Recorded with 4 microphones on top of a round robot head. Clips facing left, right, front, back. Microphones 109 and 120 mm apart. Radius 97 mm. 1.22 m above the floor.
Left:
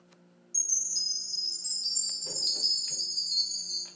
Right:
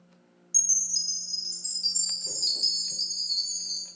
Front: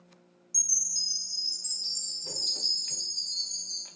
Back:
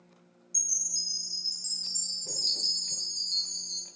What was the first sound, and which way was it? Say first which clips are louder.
A chime: right 1 dB, back 2 dB; 70° right.